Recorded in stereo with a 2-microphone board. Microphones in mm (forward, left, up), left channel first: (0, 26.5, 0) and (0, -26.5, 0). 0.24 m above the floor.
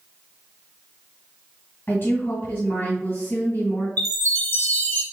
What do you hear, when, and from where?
1.9 s a woman speaking: 40° left (ahead or behind), 2 m
4.0 s a chime: 35° left (ahead or behind), 1.5 m